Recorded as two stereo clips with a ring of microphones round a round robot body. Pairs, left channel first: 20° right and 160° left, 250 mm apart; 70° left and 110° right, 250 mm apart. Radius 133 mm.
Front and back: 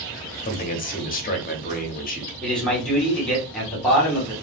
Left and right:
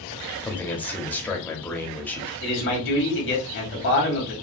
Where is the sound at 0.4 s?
10° right, 0.8 m.